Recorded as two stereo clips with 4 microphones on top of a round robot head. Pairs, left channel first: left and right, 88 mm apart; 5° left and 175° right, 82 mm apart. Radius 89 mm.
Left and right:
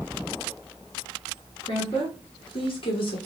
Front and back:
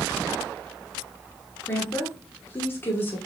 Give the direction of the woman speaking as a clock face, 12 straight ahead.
10 o'clock.